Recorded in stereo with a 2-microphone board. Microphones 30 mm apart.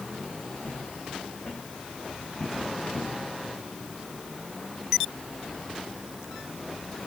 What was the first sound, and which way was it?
Footsteps, 45° left (ahead or behind).